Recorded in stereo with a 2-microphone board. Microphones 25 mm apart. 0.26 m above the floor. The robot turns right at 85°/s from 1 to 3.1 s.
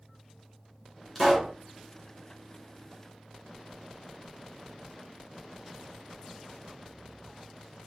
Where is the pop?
170° left, 2.5 m; by 1.5 s 155° right, 2.5 m.